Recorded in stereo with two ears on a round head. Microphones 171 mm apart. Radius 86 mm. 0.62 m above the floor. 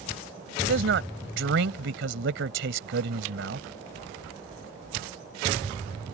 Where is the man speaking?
70° right (ahead or behind).